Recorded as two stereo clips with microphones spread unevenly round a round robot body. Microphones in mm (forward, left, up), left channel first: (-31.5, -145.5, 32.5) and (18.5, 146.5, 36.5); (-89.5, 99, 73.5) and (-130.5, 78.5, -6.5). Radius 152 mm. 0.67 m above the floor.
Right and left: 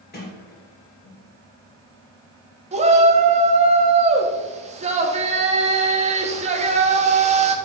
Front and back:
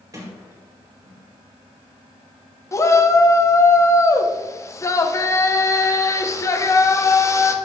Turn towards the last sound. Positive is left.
turn(degrees=140)